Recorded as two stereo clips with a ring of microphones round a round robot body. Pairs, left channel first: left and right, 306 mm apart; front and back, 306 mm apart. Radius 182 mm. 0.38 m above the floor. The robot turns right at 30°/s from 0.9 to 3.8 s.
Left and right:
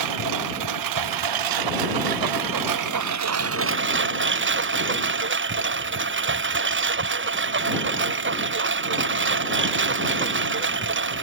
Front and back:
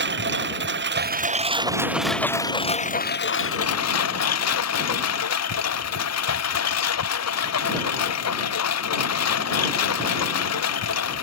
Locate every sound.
0.0 s a lawn mower: 125° right; by 11.2 s 40° right